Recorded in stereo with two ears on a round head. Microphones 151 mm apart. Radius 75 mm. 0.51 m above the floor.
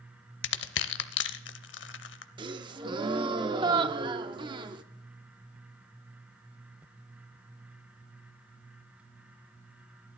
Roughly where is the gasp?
Right.